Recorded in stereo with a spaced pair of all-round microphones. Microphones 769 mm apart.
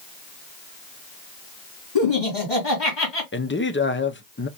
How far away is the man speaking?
About 0.5 m.